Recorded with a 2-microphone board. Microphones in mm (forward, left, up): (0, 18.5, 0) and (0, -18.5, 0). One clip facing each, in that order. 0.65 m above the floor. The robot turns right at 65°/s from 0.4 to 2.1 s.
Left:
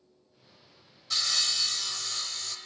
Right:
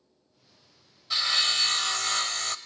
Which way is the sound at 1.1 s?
160° right.